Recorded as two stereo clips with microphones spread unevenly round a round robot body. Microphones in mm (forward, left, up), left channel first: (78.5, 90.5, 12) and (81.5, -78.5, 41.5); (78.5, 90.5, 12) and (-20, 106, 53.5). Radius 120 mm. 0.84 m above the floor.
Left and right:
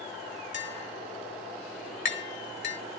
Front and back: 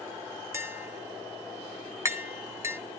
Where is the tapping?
100° left, 1.8 m.